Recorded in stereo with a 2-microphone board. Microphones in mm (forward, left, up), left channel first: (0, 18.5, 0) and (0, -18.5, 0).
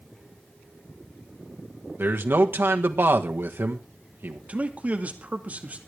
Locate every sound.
2.0 s a man speaking: 80° right, 1.6 m
4.5 s a man speaking: 40° right (ahead or behind), 2 m